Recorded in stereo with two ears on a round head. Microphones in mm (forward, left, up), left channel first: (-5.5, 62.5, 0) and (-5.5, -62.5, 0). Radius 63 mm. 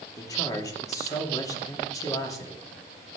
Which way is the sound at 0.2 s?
25° left (ahead or behind).